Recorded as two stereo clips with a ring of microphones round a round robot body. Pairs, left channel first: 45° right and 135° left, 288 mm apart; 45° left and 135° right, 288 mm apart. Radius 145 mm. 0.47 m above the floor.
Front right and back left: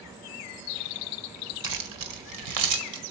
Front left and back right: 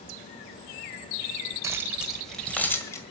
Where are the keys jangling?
145° left, 1.5 m; by 3.0 s 125° left, 2.0 m.